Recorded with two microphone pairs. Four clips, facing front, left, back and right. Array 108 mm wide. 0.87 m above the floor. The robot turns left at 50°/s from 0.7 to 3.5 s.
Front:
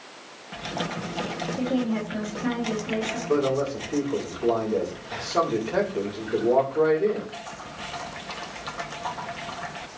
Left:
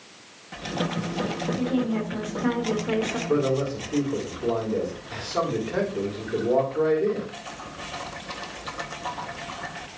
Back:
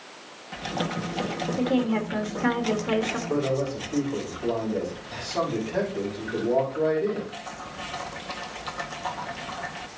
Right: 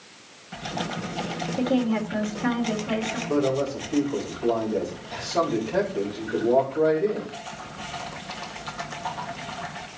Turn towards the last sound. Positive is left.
turn(degrees=10)